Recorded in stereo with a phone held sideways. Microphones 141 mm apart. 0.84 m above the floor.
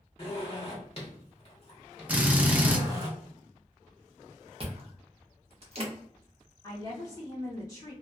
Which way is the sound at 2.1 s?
10° right (ahead or behind).